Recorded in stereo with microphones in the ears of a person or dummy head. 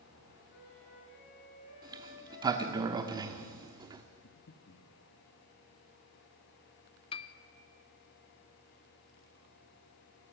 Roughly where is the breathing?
Left.